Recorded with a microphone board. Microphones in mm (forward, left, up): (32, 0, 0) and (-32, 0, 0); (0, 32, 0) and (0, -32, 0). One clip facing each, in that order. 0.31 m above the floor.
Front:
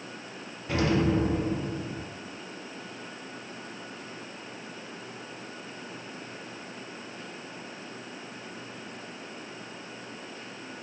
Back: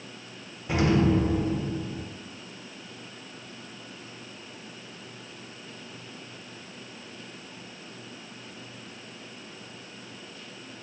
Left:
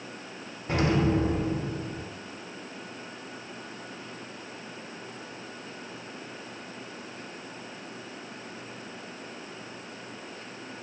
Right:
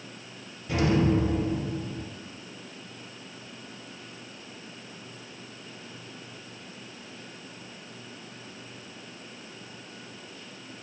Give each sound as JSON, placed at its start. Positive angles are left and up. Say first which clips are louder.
{"t": 0.7, "sound": "an explosion", "louder": "back 2 dB, right 1 dB", "azimuth_deg": 115, "distance_m": 0.5}